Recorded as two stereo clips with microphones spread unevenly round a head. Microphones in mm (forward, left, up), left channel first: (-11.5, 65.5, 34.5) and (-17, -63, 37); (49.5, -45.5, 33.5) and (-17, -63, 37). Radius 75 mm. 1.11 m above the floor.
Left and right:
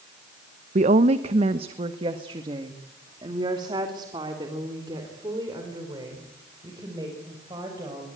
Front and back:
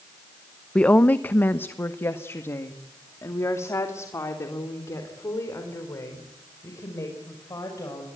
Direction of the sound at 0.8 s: 60° right.